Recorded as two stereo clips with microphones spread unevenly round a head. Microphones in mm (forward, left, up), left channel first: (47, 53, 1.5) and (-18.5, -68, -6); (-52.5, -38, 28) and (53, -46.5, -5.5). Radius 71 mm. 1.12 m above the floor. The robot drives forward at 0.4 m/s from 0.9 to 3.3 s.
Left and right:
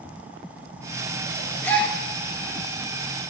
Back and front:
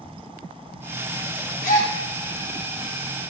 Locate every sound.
1.6 s a gasp: 135° left, 2.5 m; by 1.9 s 140° left, 2.5 m